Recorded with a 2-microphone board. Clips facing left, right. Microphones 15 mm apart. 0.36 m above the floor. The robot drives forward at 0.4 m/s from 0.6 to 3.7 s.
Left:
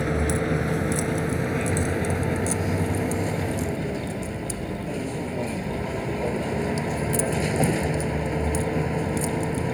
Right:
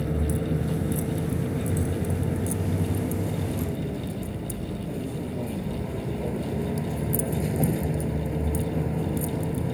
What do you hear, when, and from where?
0.0 s a vehicle: 55° left (ahead or behind); by 9.7 s 45° left (ahead or behind)